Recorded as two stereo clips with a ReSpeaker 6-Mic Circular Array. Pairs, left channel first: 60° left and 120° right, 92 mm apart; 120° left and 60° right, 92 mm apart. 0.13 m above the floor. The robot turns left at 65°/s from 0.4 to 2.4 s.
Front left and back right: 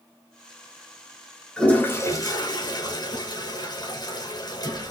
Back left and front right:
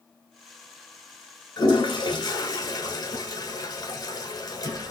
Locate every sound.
1.6 s a toilet flushing: 140° left, 1.2 m; by 4.9 s 85° left, 1.2 m